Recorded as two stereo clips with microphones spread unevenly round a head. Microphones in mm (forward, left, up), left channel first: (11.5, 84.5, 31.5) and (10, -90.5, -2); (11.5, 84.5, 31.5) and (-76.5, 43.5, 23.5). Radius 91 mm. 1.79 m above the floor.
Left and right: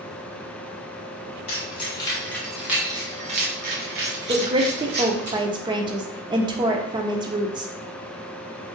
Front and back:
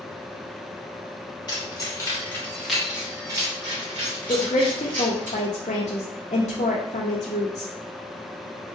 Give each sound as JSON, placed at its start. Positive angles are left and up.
{"t": 1.5, "sound": "keys jangling", "azimuth_deg": 55, "distance_m": 1.1}
{"t": 4.3, "sound": "a woman speaking", "azimuth_deg": -20, "distance_m": 0.5}